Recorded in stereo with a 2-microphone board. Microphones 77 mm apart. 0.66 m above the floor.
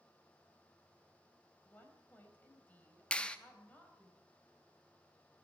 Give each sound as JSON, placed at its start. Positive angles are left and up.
{"t": 1.6, "sound": "a woman speaking", "side_deg": 20, "distance_m": 3.5}
{"t": 3.1, "sound": "a clap", "side_deg": 15, "distance_m": 0.9}